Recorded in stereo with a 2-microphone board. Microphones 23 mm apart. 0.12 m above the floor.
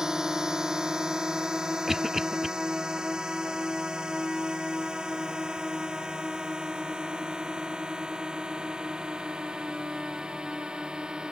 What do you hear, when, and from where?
0.0 s a drone: 30° right (ahead or behind); by 11.3 s 40° right (ahead or behind)
1.9 s a cough: 15° right (ahead or behind)